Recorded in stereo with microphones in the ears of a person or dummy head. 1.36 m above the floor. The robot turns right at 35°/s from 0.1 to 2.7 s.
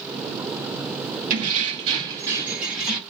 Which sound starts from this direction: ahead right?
Keys jangling, at 1.3 s.